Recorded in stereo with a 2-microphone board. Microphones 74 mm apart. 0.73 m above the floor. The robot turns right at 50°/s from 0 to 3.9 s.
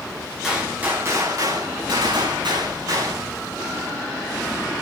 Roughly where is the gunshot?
Behind.